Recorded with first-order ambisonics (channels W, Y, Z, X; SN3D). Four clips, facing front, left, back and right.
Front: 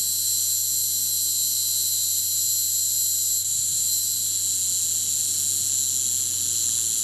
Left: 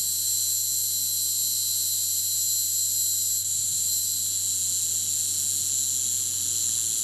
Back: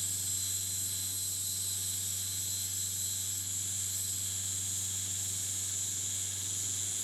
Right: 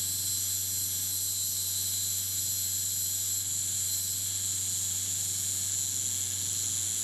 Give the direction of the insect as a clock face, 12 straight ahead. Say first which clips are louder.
Left 5 dB, front 11 dB; 11 o'clock.